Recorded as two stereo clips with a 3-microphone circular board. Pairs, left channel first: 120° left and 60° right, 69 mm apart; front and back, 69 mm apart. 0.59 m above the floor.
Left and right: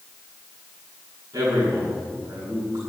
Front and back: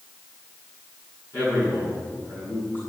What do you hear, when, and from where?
1.3 s a man speaking: 50° right, 7 m